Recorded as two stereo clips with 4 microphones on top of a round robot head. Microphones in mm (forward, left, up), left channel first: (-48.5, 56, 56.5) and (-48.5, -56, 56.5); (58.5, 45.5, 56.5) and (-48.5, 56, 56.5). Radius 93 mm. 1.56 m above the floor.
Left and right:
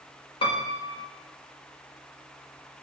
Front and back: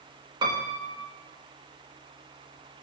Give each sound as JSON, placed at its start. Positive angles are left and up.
{"t": 0.4, "sound": "a piano", "azimuth_deg": 130, "distance_m": 1.9}